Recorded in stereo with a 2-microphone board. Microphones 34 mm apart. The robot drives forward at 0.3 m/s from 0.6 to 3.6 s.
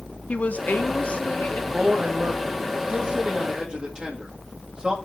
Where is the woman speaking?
50° left (ahead or behind), 1.0 m; by 1.6 s 40° left (ahead or behind), 1.2 m.